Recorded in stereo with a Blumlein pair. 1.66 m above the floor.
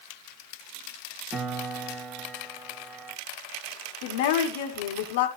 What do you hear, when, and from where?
1.3 s a piano: 15° right, 1.8 m
4.0 s a woman speaking: 55° left, 2.5 m